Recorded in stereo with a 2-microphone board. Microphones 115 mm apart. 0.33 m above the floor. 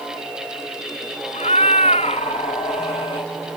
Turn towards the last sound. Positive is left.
turn(degrees=45)  # may be behind; listen again after turning